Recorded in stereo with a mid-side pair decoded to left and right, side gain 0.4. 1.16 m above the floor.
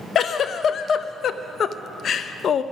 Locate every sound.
0.1 s a giggle: 65° left, 0.6 m